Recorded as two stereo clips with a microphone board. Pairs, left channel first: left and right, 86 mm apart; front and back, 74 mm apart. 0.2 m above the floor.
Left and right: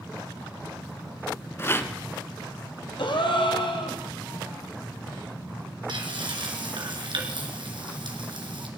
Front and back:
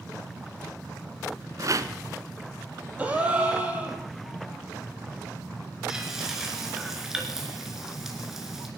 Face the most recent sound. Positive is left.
turn(degrees=-95)